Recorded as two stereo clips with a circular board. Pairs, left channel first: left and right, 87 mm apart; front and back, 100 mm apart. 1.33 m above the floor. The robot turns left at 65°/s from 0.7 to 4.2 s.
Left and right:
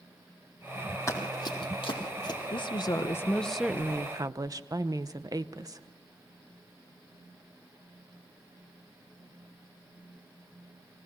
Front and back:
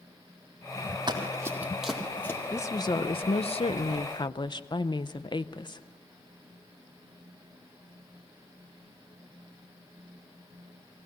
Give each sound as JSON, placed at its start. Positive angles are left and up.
{"t": 1.1, "sound": "running footsteps", "azimuth_deg": 140, "distance_m": 3.5}
{"t": 2.5, "sound": "a woman speaking", "azimuth_deg": 70, "distance_m": 0.7}